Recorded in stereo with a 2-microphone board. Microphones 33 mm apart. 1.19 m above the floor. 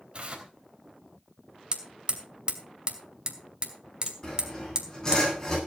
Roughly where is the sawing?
Left.